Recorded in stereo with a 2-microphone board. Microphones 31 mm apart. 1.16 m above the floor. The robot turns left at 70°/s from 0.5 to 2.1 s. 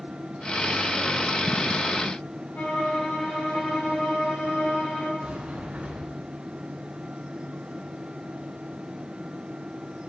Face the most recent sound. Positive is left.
turn(degrees=-55)  # may be behind; listen again after turning